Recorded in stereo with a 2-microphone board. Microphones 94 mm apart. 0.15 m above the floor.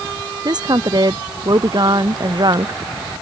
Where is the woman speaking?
45° right (ahead or behind).